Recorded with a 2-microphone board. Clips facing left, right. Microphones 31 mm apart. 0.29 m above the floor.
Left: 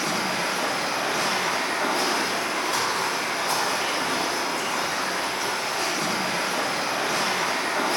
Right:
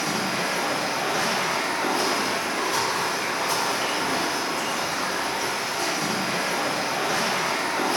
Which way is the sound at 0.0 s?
55° left (ahead or behind).